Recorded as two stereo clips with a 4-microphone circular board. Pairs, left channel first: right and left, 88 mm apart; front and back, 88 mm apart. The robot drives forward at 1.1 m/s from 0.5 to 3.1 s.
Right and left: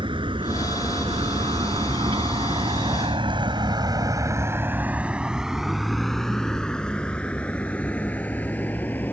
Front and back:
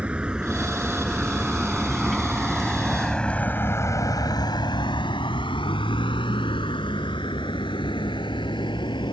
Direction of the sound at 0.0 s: 105° left.